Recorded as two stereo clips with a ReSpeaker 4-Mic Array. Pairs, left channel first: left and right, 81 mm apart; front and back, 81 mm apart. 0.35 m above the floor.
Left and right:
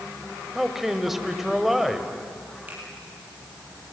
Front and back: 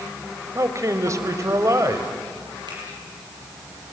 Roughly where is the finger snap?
Behind right.